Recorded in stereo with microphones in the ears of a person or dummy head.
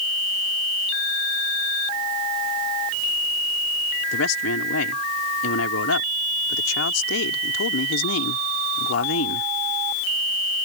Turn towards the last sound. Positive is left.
turn(degrees=90)